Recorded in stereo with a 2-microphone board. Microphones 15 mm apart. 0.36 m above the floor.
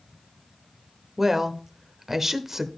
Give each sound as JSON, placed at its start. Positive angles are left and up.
{"t": 1.2, "sound": "a woman speaking", "side_deg": -25, "distance_m": 0.9}